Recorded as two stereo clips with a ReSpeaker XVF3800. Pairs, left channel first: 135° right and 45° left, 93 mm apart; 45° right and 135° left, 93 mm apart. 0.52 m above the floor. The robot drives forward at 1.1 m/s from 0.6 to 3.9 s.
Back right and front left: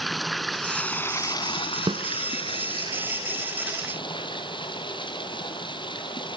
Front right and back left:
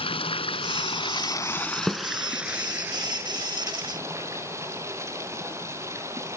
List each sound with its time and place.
0.0 s running water: 45° right, 1.1 m; by 6.4 s 165° right, 3 m
1.9 s a snare drum: 45° left, 1.3 m; by 2.0 s 50° left, 1.2 m